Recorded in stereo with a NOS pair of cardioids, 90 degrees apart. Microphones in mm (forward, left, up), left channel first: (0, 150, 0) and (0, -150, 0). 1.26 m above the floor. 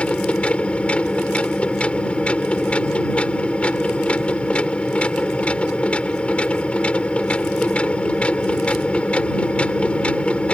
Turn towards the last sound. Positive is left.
turn(degrees=5)